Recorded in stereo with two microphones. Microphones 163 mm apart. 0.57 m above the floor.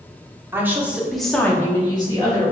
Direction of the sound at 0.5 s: 15° right (ahead or behind).